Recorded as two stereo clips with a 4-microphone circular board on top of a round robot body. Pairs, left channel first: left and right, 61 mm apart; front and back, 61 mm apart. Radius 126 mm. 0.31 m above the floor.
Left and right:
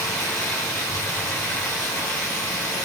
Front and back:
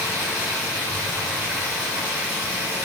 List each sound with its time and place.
0.0 s running water: 115° left, 3 m